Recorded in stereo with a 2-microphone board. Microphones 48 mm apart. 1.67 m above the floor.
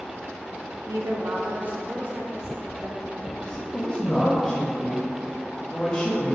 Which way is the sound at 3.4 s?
20° left (ahead or behind).